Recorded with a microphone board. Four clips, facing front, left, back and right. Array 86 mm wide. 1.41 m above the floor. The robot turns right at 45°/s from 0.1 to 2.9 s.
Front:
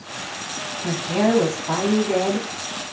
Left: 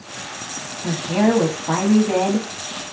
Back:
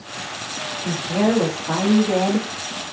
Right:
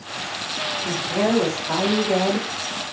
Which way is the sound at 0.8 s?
45° left.